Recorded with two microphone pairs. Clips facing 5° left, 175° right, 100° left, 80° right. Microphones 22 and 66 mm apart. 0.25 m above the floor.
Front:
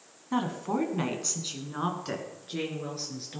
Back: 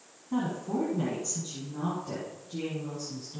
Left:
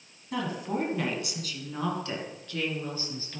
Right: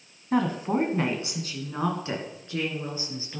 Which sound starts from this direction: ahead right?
A woman speaking, at 0.3 s.